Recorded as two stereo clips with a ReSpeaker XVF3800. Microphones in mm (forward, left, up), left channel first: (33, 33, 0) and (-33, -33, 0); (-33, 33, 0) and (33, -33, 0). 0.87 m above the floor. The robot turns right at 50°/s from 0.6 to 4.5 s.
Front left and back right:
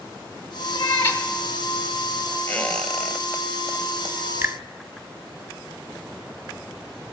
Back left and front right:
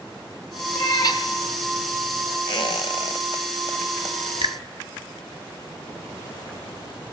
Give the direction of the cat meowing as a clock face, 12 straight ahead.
9 o'clock.